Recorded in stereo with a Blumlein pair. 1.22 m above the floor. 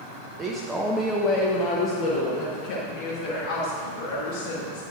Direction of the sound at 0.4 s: 25° right.